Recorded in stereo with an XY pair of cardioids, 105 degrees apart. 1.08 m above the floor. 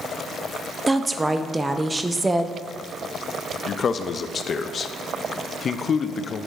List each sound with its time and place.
0.9 s a woman speaking: 15° right, 0.6 m
3.7 s a man speaking: 45° left, 0.5 m